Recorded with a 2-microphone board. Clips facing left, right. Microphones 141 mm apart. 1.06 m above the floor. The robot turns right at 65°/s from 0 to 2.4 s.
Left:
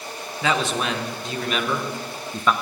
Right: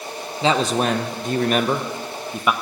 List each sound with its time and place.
0.4 s a man speaking: 145° right, 0.8 m; by 2.5 s 15° right, 0.8 m